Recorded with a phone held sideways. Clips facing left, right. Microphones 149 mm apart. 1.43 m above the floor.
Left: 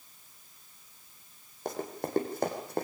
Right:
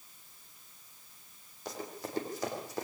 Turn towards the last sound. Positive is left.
turn(degrees=60)  # may be behind; listen again after turning